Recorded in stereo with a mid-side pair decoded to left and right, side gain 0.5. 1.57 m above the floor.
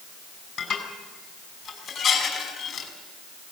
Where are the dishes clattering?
55° left, 5 m.